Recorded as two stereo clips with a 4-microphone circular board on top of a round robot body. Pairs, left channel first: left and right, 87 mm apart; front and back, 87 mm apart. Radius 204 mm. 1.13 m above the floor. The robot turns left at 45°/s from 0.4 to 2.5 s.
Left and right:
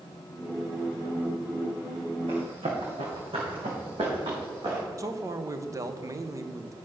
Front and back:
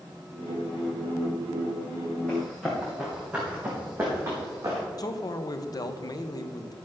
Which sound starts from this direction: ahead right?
A man speaking, at 5.0 s.